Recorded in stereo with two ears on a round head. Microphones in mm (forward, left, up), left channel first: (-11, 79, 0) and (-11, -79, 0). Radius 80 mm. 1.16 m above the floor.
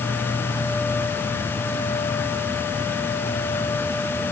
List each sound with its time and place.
Only background noise.